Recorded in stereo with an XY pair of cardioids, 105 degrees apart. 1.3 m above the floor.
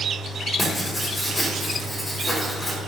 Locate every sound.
0.6 s writing: 20° left, 2.5 m